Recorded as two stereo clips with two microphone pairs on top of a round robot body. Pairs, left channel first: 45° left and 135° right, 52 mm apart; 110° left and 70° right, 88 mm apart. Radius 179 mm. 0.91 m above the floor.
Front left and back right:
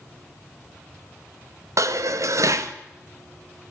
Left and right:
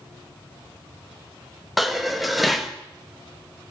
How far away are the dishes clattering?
About 0.8 m.